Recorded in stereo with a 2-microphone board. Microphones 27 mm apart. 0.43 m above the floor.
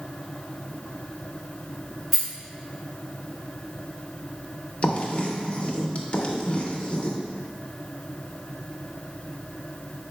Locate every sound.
2.1 s a rattle: 5° right (ahead or behind), 1.4 m
4.8 s writing: 45° left (ahead or behind), 0.6 m